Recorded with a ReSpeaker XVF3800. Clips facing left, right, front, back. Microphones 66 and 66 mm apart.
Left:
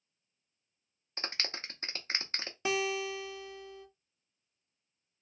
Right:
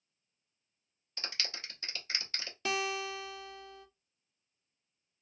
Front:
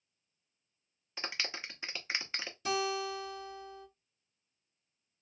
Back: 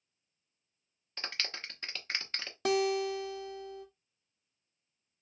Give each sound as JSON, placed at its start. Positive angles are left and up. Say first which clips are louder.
{"t": 1.2, "sound": "a clap", "louder": "left 3 dB, front 1 dB", "azimuth_deg": 75, "distance_m": 0.7}
{"t": 2.6, "sound": "a guitar", "louder": "left 2 dB, back 5 dB", "azimuth_deg": 160, "distance_m": 0.8}